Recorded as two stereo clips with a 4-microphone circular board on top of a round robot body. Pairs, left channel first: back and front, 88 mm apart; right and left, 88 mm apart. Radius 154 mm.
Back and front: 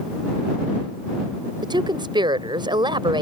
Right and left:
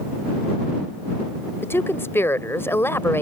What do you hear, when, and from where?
1.6 s a woman speaking: 30° right